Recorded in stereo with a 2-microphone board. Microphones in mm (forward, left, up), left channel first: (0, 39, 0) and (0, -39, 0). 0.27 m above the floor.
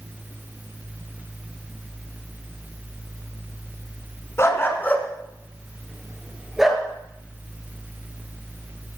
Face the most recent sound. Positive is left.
turn(degrees=-5)  # may be behind; listen again after turning